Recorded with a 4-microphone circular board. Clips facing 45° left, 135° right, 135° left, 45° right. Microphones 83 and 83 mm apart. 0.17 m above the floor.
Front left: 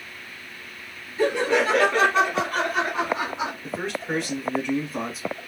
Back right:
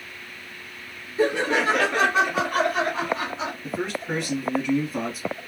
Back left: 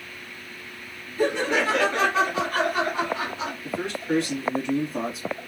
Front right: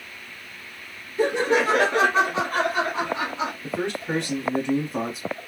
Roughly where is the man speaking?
Ahead right.